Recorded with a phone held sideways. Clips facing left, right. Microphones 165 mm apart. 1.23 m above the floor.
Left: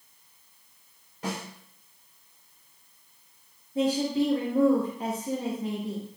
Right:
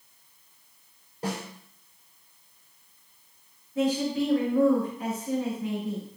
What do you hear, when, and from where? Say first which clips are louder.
1.2 s a snare drum: right 2 dB; 35° right (ahead or behind), 4 m
3.8 s a woman speaking: left 1 dB; 30° left (ahead or behind), 2.0 m